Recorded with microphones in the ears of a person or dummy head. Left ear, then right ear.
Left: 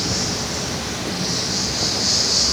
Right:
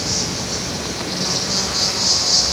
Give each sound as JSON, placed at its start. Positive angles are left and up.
{"t": 0.0, "sound": "an insect", "side_deg": -15, "distance_m": 2.0}